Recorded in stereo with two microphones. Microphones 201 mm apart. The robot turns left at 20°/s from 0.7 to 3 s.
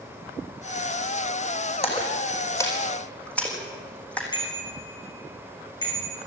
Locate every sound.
1.8 s a splash: 30° left (ahead or behind), 4 m; by 4.2 s 5° left (ahead or behind), 4 m
4.3 s a bicycle bell: 20° left (ahead or behind), 6 m